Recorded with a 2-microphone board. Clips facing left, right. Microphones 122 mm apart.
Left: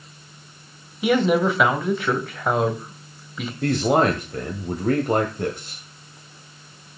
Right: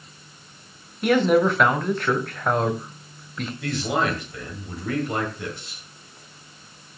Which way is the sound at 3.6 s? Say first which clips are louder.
Left 6 dB; 45° left (ahead or behind).